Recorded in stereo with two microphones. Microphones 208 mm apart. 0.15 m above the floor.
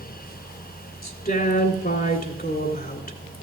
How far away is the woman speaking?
About 1.9 m.